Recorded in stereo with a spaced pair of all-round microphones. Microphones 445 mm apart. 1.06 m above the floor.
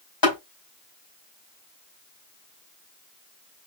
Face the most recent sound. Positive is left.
turn(degrees=50)  # may be behind; listen again after turning